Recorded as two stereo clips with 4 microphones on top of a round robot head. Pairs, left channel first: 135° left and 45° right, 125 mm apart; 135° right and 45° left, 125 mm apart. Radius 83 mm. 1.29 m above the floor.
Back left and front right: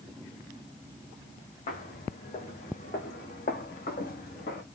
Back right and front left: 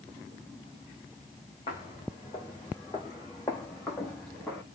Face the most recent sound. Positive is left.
turn(degrees=150)